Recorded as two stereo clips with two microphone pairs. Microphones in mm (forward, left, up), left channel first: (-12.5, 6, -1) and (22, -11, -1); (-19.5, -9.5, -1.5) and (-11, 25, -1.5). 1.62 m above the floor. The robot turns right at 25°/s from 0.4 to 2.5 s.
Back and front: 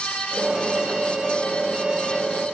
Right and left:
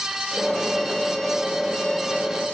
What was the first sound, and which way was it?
Only background noise.